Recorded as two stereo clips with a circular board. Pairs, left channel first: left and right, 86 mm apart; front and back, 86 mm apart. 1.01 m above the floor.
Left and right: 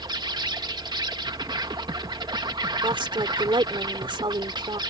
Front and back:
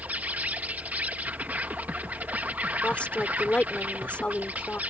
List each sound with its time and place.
0.0 s an insect: 110° right
2.8 s a woman speaking: 75° right